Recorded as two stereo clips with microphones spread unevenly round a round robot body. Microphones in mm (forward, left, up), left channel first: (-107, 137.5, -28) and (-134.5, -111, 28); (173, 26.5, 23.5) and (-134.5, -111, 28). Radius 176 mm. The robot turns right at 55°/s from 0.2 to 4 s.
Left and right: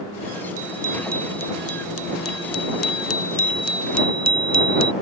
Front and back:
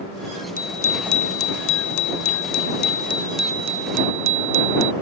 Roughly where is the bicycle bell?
Ahead right.